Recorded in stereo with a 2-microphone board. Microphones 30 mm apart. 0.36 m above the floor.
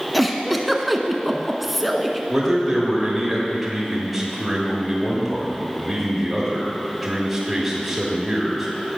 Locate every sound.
0.1 s a giggle: centre (ahead or behind), 0.7 m
2.3 s a man speaking: 10° right (ahead or behind), 1.4 m